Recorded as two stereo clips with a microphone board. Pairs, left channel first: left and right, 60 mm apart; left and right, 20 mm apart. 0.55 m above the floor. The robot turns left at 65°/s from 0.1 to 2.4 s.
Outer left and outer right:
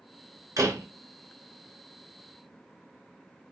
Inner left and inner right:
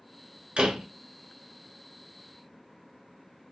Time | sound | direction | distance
0.6 | a door slam | 70° right (ahead or behind) | 1.5 m